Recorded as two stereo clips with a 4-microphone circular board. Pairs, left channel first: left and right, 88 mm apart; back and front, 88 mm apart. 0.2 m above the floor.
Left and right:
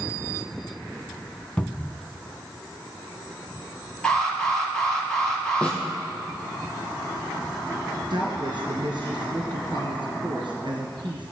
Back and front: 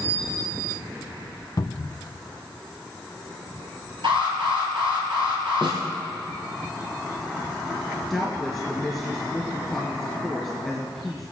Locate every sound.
1.6 s a cupboard door: 170° left, 0.6 m
4.0 s an alarm: 10° left, 5 m
5.6 s a snare drum: 15° left, 3 m
8.1 s a woman speaking: 85° right, 3 m